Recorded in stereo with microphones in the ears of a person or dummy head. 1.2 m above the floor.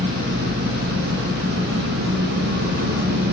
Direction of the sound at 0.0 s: 60° right (ahead or behind).